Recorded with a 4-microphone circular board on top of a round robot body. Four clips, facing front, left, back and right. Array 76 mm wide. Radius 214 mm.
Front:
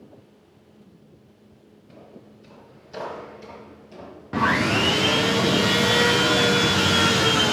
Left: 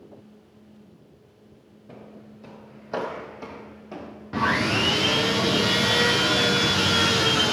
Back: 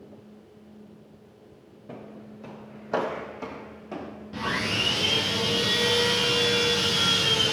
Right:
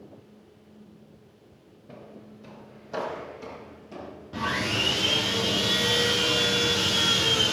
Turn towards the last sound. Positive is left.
turn(degrees=30)